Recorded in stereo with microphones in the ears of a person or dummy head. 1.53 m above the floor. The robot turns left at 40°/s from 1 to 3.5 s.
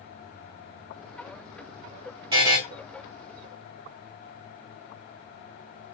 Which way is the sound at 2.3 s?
25° right (ahead or behind).